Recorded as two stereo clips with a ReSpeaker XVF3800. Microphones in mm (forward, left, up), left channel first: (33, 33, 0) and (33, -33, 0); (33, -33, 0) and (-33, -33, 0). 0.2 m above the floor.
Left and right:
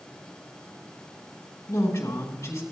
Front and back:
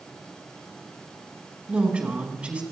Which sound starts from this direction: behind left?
A woman speaking, at 1.7 s.